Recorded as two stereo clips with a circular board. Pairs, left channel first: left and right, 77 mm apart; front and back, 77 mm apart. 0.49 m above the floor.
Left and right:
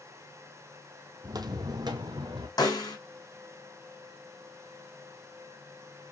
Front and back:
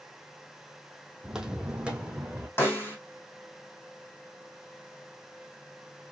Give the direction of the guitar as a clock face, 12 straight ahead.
I don't hear a guitar.